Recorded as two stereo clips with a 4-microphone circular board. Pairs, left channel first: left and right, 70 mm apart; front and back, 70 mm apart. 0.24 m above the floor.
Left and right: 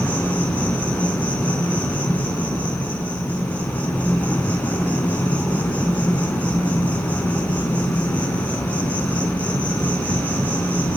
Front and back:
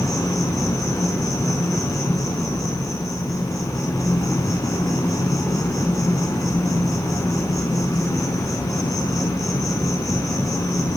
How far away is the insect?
About 3 m.